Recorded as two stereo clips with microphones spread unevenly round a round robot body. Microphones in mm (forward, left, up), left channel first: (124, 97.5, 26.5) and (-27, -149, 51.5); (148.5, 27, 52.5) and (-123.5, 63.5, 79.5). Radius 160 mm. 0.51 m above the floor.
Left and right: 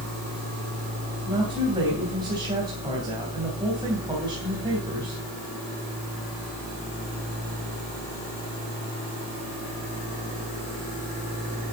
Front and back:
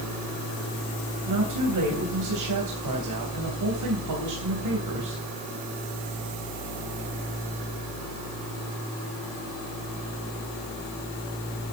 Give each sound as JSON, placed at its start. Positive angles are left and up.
{"t": 1.3, "sound": "a woman speaking", "azimuth_deg": 160, "distance_m": 3.5}